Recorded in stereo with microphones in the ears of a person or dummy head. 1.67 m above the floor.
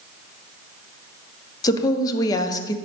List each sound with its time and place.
1.6 s a woman speaking: 25° left (ahead or behind), 0.7 m